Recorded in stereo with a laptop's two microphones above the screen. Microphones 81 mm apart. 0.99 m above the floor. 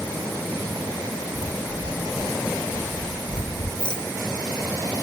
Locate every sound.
1.4 s footsteps: 40° left (ahead or behind), 1.3 m; by 3.7 s 60° left (ahead or behind), 2.5 m
3.8 s a rattle: 75° left (ahead or behind), 2.5 m